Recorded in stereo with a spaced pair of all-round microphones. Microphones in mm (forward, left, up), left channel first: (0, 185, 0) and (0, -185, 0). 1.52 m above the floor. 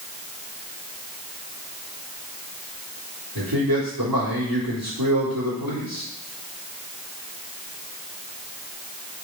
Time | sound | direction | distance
3.4 | a man speaking | 70° right (ahead or behind) | 4 m